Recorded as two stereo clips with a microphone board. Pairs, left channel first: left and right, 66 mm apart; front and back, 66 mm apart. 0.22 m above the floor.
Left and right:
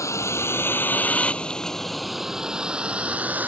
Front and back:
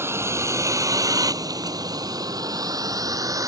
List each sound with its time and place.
0.0 s a vehicle: 130° left; by 3.5 s 155° right